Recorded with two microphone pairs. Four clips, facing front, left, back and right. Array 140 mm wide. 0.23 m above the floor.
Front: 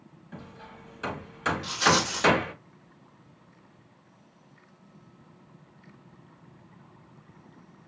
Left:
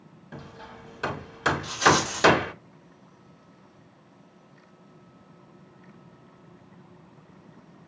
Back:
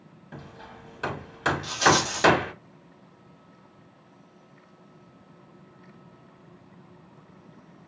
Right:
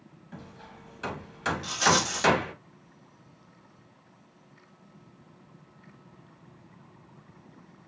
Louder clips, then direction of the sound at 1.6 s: Left 3 dB, back 3 dB; 145° right.